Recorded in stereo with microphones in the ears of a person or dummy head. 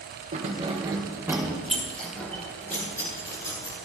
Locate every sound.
0.3 s keys jangling: 40° right (ahead or behind), 1.2 m; by 3.8 s 20° left (ahead or behind), 3 m